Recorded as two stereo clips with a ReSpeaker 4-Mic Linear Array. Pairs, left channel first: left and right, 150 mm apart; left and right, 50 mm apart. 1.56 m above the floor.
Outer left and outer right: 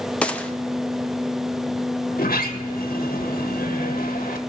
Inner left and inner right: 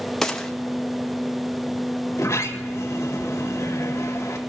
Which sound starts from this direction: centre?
A gunshot, at 0.2 s.